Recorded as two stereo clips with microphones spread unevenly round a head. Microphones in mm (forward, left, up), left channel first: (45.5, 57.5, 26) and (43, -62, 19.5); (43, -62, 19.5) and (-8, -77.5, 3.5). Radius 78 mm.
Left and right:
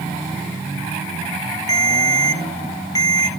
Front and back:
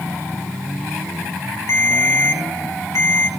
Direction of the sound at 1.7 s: 30° left.